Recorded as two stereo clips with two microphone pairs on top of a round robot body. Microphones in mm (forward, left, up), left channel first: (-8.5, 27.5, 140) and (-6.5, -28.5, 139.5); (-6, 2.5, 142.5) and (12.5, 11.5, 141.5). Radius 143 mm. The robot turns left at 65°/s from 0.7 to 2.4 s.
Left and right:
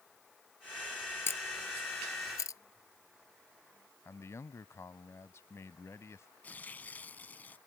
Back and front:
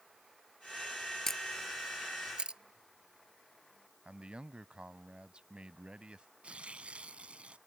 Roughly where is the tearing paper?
Ahead left.